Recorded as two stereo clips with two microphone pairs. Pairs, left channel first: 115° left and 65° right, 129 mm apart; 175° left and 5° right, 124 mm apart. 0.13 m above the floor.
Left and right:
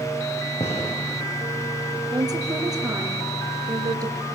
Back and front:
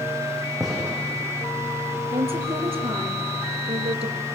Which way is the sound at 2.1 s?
15° right.